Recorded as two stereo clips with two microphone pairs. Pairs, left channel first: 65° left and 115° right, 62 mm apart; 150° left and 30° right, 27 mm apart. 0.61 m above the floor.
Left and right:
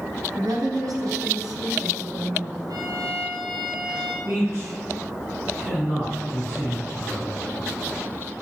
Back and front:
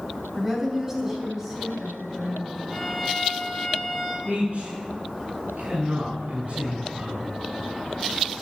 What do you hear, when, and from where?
0.3 s a woman speaking: 115° right, 4 m; by 2.6 s 105° right, 5.5 m
2.7 s a violin: 110° right, 3.5 m
4.2 s a man speaking: 70° right, 6 m